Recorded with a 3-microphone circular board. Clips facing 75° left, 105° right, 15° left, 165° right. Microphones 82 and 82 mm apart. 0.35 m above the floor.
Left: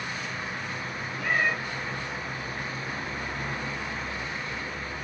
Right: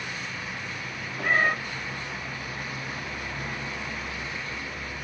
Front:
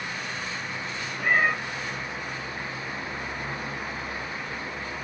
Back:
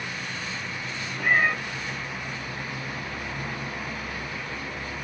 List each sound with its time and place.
1.2 s a cat meowing: 80° right, 1.0 m